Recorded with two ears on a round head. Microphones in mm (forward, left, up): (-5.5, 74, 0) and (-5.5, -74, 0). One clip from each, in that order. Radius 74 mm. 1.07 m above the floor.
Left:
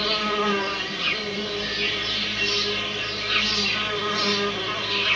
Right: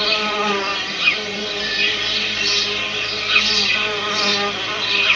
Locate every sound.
0.0 s an insect: 35° right (ahead or behind), 0.8 m